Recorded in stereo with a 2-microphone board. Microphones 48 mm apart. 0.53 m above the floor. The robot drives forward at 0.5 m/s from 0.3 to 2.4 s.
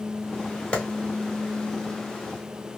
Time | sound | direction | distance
0.7 | a clap | 25° left (ahead or behind) | 1.3 m